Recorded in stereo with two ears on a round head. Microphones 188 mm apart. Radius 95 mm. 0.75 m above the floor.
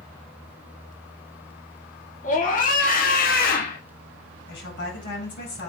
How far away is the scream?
About 2 m.